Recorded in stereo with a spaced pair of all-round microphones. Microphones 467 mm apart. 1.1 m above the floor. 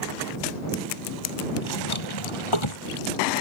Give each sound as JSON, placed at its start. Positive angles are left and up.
{"t": 1.6, "sound": "a drawer", "side_deg": 85}